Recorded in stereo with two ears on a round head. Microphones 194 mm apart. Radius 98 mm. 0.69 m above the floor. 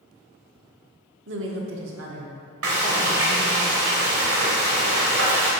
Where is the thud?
I don't hear a thud.